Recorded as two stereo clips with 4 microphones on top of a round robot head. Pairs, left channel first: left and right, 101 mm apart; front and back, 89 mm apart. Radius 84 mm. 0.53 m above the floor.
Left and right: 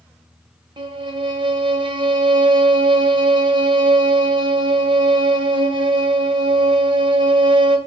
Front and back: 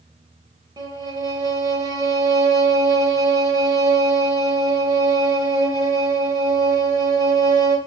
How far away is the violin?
About 2.0 m.